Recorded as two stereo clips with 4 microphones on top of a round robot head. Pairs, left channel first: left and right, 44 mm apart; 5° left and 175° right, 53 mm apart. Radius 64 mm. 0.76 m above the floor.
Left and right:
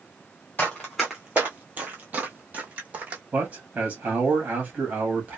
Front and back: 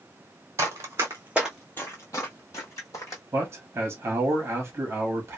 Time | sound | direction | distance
0.6 | running footsteps | 165° left | 1.0 m
3.3 | a man speaking | 140° right | 0.9 m